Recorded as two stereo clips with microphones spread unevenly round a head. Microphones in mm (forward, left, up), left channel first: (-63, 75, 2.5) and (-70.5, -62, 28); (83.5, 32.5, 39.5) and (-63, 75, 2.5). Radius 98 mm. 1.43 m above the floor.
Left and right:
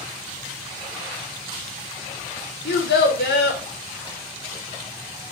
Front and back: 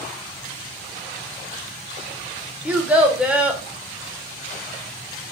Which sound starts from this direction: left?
A child speaking, at 2.6 s.